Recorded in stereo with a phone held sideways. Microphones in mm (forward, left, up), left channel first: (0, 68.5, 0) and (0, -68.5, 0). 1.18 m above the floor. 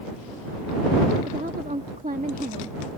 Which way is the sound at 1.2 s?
70° right (ahead or behind).